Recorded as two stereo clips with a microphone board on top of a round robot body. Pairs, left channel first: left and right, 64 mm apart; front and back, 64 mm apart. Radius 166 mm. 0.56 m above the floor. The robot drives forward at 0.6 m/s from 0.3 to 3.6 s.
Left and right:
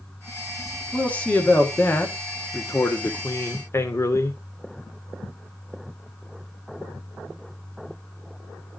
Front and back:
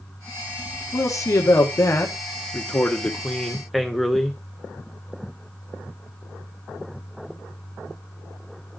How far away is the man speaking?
About 1.9 m.